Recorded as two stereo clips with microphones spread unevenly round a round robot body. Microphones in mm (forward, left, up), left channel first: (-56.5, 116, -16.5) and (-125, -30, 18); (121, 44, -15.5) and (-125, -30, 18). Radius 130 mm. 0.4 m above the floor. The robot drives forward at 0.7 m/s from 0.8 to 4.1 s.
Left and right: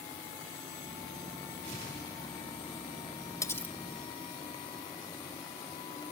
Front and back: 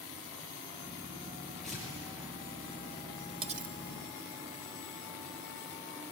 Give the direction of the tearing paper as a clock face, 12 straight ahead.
2 o'clock.